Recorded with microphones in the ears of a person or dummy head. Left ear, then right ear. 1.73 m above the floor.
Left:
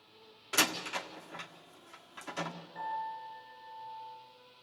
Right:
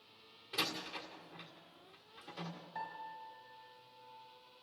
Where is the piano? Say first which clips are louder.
Left 8 dB; 55° right (ahead or behind), 4.5 m.